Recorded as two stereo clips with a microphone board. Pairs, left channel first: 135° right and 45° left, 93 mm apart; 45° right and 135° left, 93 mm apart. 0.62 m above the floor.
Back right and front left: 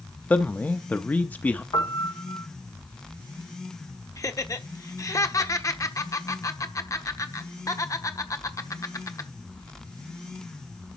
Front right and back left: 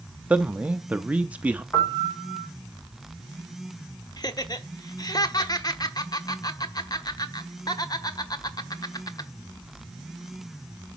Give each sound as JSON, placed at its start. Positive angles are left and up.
{"t": 0.3, "sound": "a man speaking", "azimuth_deg": -175, "distance_m": 0.6}
{"t": 1.7, "sound": "a piano", "azimuth_deg": -110, "distance_m": 1.7}
{"t": 4.2, "sound": "laughter", "azimuth_deg": -85, "distance_m": 1.2}